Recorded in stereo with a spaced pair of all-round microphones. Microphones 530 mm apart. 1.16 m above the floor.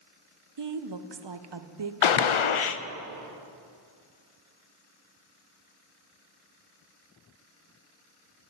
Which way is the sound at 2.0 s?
65° left (ahead or behind).